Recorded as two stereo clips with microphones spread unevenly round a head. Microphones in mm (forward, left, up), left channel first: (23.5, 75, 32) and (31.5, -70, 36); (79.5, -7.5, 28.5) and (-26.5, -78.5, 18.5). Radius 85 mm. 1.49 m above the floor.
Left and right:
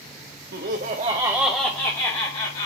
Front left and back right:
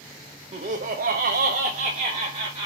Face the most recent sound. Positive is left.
turn(degrees=145)